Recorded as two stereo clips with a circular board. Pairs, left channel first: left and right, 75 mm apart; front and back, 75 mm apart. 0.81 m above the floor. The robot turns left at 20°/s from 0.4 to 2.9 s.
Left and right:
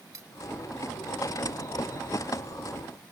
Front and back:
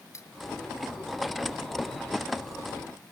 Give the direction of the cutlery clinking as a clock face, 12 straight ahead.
2 o'clock.